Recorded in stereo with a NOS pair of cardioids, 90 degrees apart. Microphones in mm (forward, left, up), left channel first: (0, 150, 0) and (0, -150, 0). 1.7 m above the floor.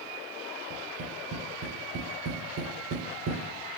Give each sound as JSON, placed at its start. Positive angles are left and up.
{"t": 0.7, "sound": "tapping", "azimuth_deg": -65, "distance_m": 3.5}